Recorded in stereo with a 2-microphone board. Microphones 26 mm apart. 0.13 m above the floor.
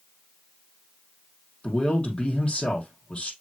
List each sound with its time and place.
1.6 s a man speaking: 30° left (ahead or behind), 5 m